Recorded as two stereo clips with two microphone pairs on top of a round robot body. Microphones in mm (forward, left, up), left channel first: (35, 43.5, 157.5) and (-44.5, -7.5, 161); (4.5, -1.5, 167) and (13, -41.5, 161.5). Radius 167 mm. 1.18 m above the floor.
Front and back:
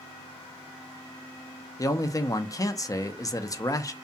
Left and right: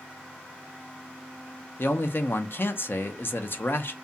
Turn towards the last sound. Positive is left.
turn(degrees=75)